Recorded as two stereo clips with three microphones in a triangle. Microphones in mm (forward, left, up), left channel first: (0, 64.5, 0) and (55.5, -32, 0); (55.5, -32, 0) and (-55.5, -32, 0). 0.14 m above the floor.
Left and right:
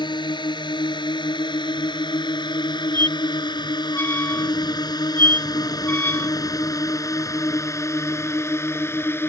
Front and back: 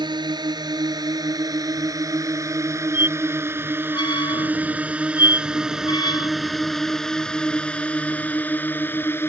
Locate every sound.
0.0 s a drone: 150° left; by 9.3 s 60° left
2.9 s a squeak: 50° left